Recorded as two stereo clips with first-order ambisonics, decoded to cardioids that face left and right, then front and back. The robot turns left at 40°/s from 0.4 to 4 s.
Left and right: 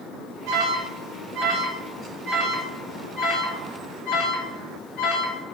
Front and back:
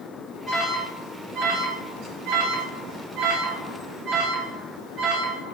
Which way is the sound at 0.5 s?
90° right.